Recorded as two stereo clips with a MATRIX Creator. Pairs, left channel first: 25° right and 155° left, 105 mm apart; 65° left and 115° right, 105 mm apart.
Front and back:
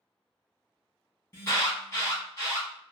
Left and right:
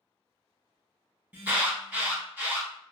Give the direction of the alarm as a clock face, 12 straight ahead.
2 o'clock.